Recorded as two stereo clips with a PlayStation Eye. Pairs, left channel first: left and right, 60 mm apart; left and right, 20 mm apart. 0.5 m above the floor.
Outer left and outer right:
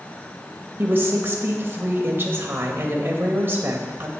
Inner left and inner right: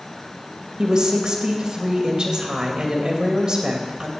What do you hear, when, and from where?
0.8 s a woman speaking: 35° right (ahead or behind), 2.5 m